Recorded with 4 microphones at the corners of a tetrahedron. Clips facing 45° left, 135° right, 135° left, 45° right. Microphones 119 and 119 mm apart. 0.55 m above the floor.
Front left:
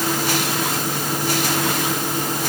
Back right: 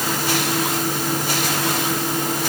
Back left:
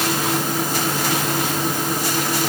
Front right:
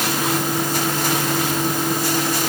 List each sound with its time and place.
Only background noise.